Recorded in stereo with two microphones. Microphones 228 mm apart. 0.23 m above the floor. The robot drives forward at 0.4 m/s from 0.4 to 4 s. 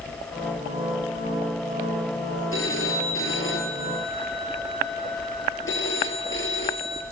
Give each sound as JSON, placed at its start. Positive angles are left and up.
{"t": 2.5, "sound": "a phone ringing", "side_deg": 70, "distance_m": 3.5}